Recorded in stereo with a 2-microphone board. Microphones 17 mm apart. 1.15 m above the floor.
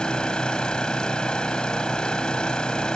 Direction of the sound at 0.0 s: 50° left (ahead or behind).